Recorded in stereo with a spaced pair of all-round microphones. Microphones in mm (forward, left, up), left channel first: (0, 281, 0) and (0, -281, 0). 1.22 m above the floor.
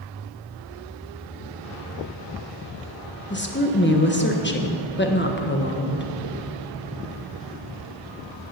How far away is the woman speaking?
About 1.1 m.